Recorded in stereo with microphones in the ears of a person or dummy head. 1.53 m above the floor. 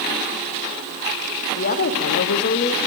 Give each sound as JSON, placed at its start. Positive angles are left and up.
{"t": 1.6, "sound": "a woman speaking", "side_deg": 45, "distance_m": 1.1}